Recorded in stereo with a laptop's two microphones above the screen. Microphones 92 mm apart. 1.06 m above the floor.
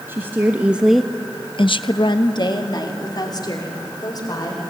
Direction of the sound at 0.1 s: 25° right (ahead or behind).